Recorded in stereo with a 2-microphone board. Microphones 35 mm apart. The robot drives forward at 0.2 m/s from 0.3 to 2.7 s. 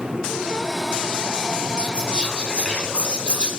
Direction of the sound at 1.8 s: 30° left (ahead or behind).